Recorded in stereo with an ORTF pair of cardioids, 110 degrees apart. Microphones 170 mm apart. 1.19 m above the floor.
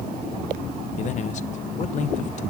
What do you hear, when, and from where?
1.0 s a man speaking: 45° left, 1.0 m